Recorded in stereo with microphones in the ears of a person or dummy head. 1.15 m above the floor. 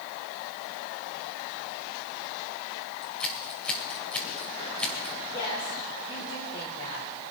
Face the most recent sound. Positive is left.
turn(degrees=25)  # may be behind; listen again after turning